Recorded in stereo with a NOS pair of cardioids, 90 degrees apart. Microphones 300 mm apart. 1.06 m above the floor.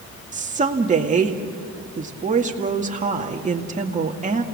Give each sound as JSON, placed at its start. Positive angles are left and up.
{"t": 0.3, "sound": "a woman speaking", "azimuth_deg": -25, "distance_m": 2.0}